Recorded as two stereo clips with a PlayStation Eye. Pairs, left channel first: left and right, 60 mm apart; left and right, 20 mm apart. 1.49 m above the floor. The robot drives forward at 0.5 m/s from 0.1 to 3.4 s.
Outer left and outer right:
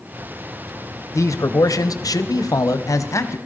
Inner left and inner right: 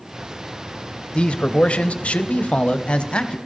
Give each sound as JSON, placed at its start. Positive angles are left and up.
{"t": 1.1, "sound": "a man speaking", "side_deg": 60, "distance_m": 1.0}